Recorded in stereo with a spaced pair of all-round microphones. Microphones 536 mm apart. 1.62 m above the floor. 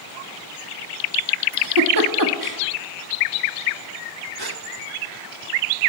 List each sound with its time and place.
1.5 s a giggle: 35° right (ahead or behind), 1.7 m
4.4 s a gasp: 40° right (ahead or behind), 1.4 m